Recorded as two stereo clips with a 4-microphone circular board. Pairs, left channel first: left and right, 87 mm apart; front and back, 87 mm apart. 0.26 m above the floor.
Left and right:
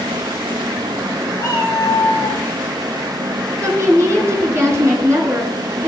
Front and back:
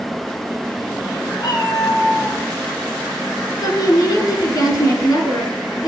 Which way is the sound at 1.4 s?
35° left.